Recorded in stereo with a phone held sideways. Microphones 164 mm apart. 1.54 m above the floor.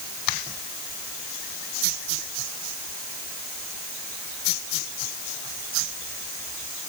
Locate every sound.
Only background noise.